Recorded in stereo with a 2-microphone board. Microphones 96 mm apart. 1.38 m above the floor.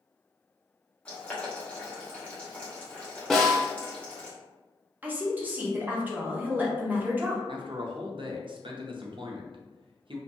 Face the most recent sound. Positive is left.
turn(degrees=-60)  # may be behind; listen again after turning